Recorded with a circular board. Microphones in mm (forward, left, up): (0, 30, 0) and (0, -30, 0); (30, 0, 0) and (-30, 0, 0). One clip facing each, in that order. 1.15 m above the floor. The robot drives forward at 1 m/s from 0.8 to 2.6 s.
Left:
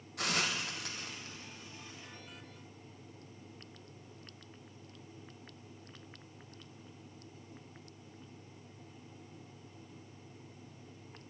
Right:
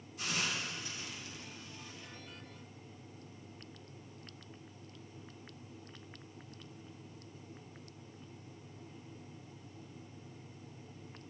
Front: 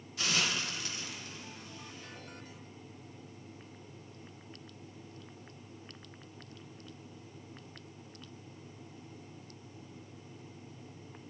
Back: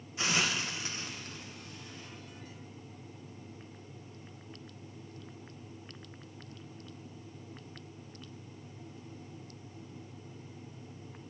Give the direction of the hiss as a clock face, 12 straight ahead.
8 o'clock.